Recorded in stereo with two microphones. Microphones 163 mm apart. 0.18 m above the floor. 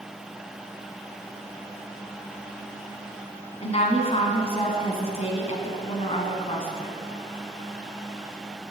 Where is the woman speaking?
40° left (ahead or behind), 1.4 m.